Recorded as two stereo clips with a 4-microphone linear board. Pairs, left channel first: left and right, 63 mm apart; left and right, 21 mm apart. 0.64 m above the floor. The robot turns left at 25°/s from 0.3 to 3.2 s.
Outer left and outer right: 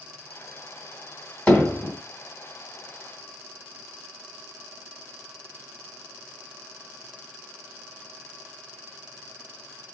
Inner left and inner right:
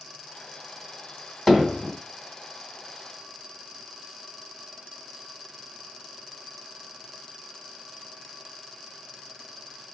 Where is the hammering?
20° left (ahead or behind), 1.8 m; by 1.9 s 30° left (ahead or behind), 1.8 m.